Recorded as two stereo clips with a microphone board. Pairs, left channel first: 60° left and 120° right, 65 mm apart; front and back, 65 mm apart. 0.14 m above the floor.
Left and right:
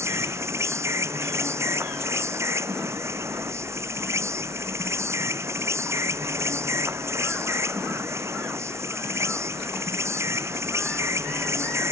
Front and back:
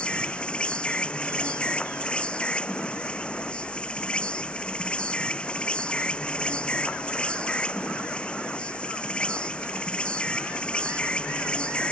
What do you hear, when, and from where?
0.0 s an insect: 75° right